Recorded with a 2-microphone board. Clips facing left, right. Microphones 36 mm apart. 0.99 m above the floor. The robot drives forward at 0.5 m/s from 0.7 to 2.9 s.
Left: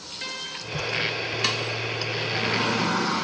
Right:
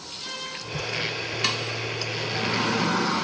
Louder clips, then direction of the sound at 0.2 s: Left 1 dB; 50° left (ahead or behind).